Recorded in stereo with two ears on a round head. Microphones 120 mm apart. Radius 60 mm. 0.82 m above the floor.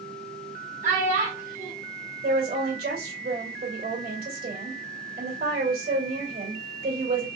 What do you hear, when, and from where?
0.8 s a child speaking: 70° right (ahead or behind), 2 m
2.2 s a woman speaking: 75° right (ahead or behind), 2 m